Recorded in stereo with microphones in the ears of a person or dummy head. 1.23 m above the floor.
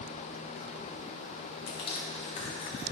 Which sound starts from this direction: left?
Crushing, at 1.7 s.